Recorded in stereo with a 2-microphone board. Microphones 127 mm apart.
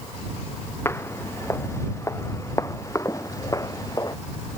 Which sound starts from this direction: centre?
Footsteps, at 0.8 s.